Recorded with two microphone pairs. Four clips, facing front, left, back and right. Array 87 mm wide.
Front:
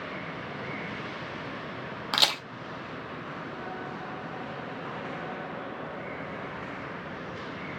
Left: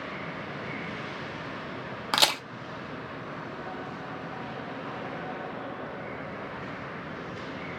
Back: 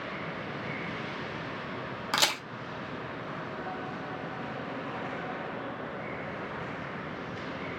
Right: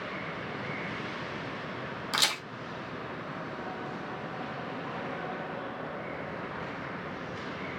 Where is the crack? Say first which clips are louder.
Left 6 dB, even; 85° left, 0.7 m.